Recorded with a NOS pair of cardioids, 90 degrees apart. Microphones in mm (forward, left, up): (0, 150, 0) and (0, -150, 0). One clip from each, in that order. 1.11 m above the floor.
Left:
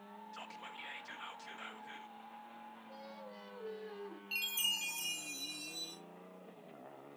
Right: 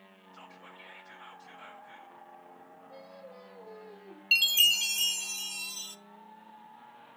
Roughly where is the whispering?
Left.